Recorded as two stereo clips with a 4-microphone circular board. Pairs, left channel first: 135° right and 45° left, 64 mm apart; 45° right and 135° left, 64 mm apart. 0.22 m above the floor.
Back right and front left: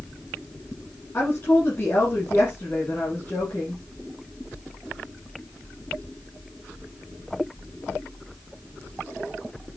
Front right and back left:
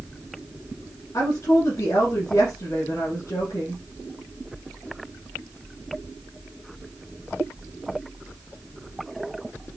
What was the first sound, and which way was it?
A woman speaking, 80° right.